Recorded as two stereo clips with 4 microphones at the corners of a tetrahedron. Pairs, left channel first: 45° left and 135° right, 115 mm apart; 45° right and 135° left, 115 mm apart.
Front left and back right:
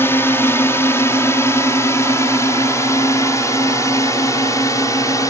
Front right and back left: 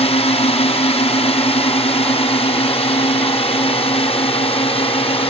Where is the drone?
25° right; by 5.3 s 15° right.